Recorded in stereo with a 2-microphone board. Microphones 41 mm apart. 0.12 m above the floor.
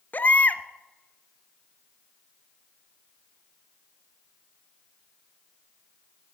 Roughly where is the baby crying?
Left.